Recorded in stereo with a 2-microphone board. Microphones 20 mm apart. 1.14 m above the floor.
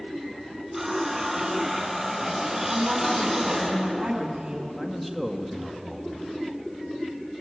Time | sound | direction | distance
0.7 | a running tap | 15° right (ahead or behind) | 6.5 m
2.7 | a woman speaking | 45° right (ahead or behind) | 9 m
4.8 | a man speaking | centre (ahead or behind) | 2.0 m